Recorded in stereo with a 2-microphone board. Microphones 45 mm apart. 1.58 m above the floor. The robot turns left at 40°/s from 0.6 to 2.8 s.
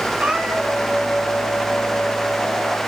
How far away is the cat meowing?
About 1.8 m.